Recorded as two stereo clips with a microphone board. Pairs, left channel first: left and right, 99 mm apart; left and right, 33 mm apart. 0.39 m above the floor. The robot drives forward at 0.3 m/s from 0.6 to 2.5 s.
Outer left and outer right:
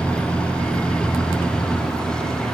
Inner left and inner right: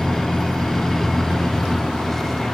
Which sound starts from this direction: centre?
A vehicle, at 0.0 s.